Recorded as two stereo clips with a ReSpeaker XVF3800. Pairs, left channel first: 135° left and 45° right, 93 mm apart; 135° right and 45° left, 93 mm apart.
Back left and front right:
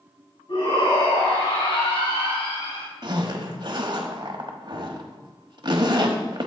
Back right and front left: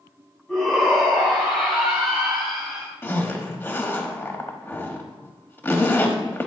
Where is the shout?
140° left, 3.5 m; by 2.9 s 135° left, 2 m.